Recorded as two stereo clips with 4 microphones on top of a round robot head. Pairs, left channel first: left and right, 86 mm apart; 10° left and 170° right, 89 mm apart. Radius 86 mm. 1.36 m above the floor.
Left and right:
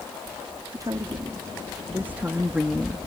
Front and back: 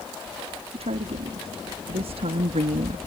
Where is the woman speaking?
150° right; by 3.0 s straight behind.